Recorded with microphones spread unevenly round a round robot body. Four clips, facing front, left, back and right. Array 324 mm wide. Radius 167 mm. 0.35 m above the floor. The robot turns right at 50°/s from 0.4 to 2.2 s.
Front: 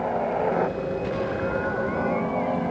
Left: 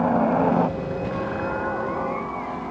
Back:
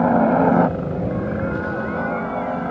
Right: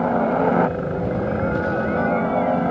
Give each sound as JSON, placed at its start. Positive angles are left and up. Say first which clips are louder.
{"t": 0.0, "sound": "a helicopter", "louder": "right 1 dB, back 9 dB", "azimuth_deg": 180}